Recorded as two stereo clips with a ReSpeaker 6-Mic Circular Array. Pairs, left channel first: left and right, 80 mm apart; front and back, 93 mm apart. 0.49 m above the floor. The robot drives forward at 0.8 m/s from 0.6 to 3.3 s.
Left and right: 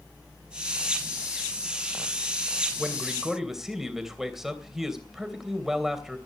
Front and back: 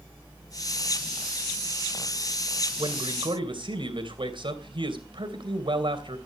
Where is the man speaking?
175° right, 2.5 m.